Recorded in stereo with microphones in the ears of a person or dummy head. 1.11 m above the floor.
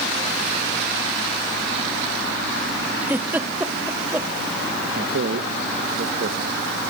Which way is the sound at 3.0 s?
5° right (ahead or behind).